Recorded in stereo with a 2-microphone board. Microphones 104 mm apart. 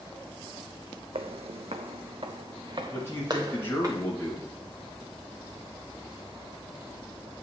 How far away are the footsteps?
About 0.5 m.